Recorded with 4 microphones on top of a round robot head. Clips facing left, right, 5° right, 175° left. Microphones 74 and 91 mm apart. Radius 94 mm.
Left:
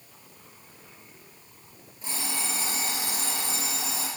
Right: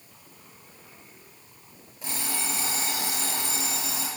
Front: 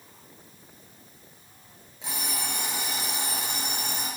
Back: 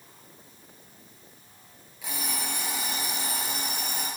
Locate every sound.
2.0 s an alarm clock: 70° right, 6.5 m